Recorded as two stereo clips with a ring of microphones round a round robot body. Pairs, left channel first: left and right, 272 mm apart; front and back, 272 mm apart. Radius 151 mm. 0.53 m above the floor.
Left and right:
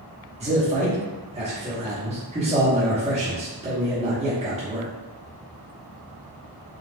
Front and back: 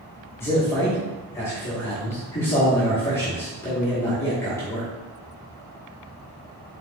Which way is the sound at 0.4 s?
65° right.